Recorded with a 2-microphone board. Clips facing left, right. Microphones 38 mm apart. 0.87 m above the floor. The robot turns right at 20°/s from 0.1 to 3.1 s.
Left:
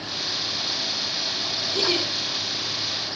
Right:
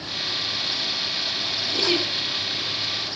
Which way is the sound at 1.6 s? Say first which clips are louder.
Right 1 dB; 40° right (ahead or behind).